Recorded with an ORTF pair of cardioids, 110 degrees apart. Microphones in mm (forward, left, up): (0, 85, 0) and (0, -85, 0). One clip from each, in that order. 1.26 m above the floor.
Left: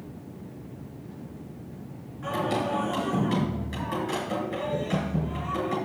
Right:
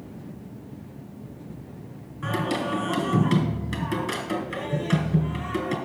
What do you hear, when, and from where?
2.2 s singing: 45° right, 4.5 m